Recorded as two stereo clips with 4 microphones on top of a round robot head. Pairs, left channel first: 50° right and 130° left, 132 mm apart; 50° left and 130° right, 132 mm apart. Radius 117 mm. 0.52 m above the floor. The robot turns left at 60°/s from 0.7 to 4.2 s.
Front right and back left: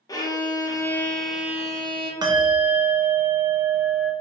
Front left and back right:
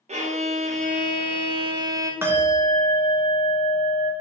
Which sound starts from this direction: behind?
A bell, at 2.2 s.